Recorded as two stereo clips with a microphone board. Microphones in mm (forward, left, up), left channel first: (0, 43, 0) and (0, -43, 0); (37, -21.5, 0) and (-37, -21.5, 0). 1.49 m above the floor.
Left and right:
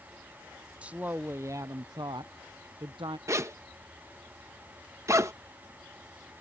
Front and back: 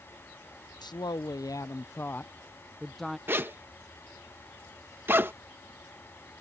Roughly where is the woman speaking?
Ahead.